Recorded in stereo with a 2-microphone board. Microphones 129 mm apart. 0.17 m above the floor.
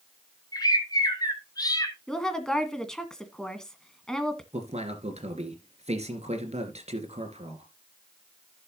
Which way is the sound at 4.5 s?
55° right (ahead or behind).